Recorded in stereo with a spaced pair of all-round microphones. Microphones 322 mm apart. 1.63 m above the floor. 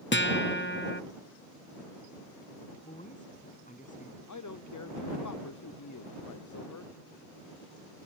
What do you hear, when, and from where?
0.1 s a guitar: 35° left (ahead or behind)
2.8 s a woman speaking: 25° left (ahead or behind)
4.3 s a man speaking: 65° left (ahead or behind)